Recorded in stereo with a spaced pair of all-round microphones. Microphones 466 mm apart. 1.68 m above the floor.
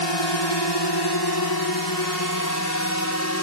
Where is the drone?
65° left (ahead or behind); by 3.4 s 35° left (ahead or behind).